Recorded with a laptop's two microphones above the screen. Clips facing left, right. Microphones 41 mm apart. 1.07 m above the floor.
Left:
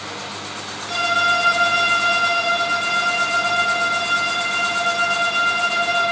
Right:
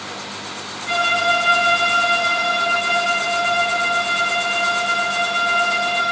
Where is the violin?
75° right (ahead or behind), 4.5 m.